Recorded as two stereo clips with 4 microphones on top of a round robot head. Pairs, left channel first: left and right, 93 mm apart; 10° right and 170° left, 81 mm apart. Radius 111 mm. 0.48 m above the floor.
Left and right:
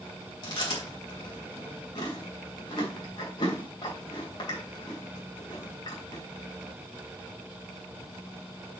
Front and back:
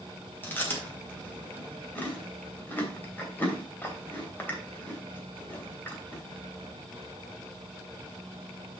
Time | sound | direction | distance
0.4 | chewing | 55° left | 3 m